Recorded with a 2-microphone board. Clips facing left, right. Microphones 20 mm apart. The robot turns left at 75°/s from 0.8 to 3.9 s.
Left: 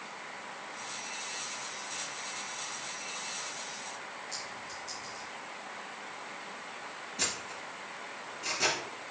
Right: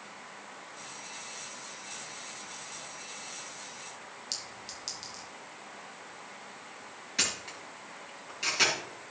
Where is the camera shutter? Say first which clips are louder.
Right 4 dB; 70° right (ahead or behind), 5.5 m.